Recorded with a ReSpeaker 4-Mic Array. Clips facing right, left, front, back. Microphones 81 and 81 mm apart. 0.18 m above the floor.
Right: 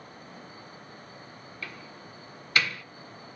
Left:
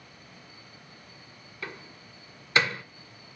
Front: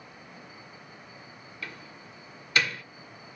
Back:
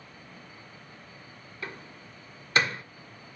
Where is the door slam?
140° left, 1.0 m.